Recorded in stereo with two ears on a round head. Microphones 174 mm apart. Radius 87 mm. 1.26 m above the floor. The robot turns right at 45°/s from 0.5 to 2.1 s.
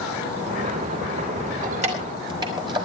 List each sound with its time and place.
1.6 s keys jangling: 45° right (ahead or behind), 4.5 m; by 2.9 s 25° right (ahead or behind), 4.5 m